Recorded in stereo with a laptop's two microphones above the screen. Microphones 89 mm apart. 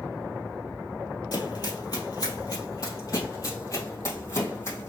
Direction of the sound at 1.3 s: 55° left (ahead or behind).